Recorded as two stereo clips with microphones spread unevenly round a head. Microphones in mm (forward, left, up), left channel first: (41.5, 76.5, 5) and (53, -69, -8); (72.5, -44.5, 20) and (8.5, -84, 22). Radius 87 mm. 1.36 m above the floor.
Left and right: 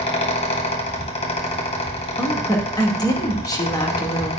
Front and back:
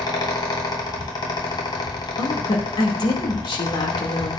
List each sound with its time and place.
0.0 s a fan: 50° left, 2.0 m
2.2 s a woman speaking: 30° left, 2.5 m